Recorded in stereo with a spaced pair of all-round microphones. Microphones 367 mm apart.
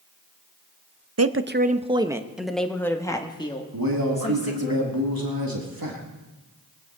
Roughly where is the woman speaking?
Right.